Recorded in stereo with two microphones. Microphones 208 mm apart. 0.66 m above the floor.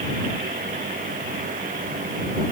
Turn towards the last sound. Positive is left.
No sound to turn to.